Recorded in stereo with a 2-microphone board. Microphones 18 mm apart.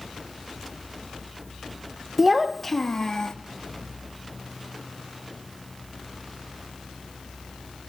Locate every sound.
2.2 s a child speaking: 10° right (ahead or behind), 1.0 m; by 3.3 s 40° left (ahead or behind), 1.3 m